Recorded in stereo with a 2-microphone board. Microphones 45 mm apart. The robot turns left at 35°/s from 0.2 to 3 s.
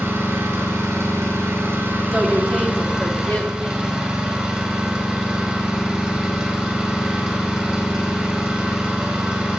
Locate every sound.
0.0 s an engine running: 70° right, 3.5 m; by 9.6 s 165° right, 3.5 m
2.1 s a woman speaking: 175° right, 2 m; by 3.8 s 155° left, 2 m